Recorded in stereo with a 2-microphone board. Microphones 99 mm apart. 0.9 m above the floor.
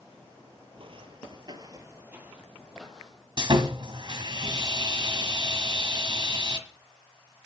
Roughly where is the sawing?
Right.